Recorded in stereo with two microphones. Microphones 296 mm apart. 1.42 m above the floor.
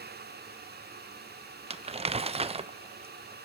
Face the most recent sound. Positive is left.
turn(degrees=-20)  # may be behind; listen again after turning